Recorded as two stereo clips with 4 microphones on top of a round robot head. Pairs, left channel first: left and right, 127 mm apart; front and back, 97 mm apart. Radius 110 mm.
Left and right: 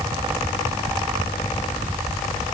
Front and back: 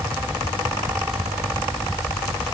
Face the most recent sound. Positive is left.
No sound to turn to.